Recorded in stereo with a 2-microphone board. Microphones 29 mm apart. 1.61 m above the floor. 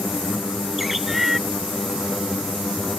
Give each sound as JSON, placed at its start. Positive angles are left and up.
{"t": 0.8, "sound": "a bird", "side_deg": -5}